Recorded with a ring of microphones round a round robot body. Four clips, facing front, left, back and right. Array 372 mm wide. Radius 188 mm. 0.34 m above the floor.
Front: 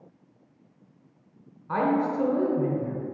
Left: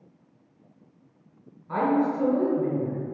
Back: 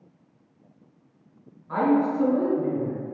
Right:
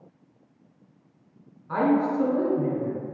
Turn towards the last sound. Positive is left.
turn(degrees=5)